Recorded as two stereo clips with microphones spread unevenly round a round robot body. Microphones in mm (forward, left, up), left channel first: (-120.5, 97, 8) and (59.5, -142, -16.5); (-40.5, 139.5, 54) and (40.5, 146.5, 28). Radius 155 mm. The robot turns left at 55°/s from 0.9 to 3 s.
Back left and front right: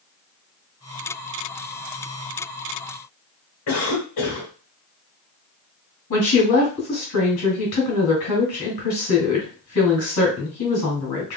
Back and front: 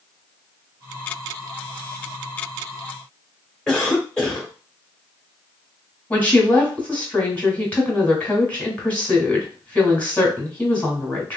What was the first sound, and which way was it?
A cough, 95° left.